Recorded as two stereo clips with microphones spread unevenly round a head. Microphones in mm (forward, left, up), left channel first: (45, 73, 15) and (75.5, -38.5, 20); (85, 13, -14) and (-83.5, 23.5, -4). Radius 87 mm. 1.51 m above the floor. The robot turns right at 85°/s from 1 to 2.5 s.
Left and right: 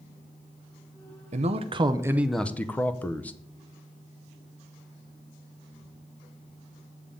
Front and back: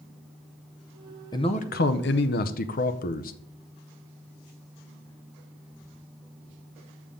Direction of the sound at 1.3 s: 70° right.